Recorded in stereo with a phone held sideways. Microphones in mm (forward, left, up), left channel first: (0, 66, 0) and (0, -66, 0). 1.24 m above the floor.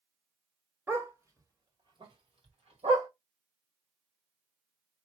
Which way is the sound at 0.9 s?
15° right (ahead or behind).